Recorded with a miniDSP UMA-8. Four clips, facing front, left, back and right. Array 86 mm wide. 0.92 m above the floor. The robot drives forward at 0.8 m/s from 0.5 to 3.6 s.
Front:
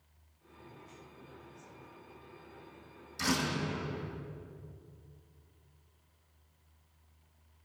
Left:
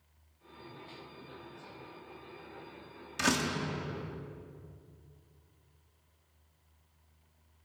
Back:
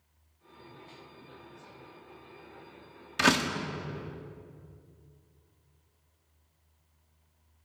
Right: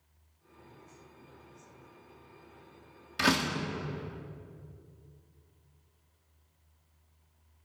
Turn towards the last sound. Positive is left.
turn(degrees=-170)